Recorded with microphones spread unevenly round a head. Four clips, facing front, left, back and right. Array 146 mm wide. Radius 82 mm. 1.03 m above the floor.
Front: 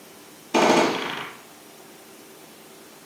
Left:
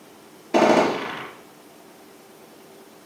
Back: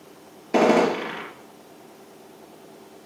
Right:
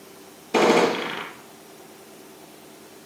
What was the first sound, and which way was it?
A gunshot, 155° left.